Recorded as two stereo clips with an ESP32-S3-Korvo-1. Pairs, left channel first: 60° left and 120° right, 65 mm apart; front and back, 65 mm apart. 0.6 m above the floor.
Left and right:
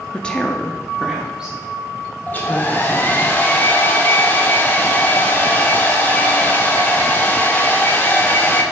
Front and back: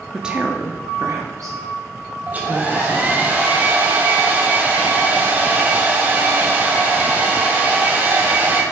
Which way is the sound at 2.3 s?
120° left.